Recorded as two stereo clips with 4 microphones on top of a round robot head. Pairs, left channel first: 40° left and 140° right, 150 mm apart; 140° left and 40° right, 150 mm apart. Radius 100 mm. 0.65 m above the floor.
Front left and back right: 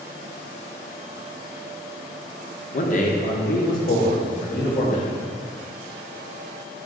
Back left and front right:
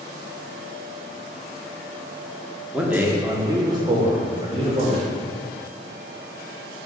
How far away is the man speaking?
About 1.6 m.